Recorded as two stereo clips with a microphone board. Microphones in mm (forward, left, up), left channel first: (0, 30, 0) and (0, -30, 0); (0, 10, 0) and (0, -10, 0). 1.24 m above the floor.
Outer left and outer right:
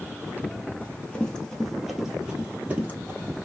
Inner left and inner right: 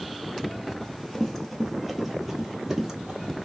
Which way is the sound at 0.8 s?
20° left (ahead or behind).